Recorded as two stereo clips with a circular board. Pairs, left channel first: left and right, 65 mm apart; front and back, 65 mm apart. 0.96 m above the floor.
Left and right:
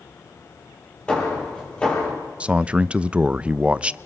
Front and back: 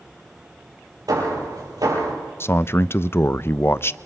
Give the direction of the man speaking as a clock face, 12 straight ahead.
1 o'clock.